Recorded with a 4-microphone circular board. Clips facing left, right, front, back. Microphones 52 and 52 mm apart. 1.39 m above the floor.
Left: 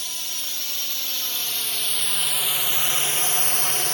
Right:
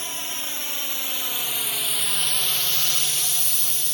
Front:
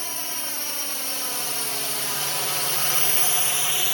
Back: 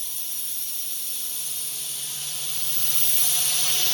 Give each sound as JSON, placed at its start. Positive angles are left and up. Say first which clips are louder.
{"t": 0.0, "sound": "a drone", "louder": "right 2 dB, front 10 dB", "azimuth_deg": -30}